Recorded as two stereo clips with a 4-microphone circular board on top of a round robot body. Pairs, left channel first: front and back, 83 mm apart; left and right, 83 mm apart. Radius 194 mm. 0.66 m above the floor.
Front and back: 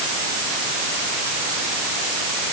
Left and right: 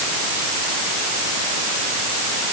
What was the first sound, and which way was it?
Only background noise.